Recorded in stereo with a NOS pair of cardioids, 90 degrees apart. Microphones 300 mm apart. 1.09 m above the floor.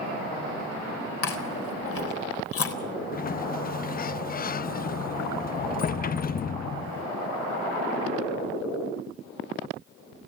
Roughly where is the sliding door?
Ahead left.